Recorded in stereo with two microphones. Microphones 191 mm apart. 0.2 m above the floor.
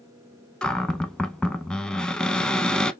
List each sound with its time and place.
0.6 s a cupboard door: 5° left (ahead or behind), 0.5 m